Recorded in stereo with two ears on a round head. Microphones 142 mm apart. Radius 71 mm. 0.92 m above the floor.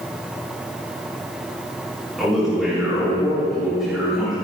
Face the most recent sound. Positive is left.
turn(degrees=0)  # may be behind; listen again after turning